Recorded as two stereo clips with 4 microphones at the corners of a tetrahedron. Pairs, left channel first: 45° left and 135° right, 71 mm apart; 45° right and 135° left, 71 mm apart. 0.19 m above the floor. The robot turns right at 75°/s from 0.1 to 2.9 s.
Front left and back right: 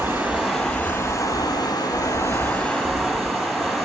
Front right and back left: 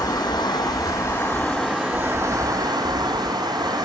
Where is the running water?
80° right, 1.3 m; by 3.9 s 130° left, 1.3 m.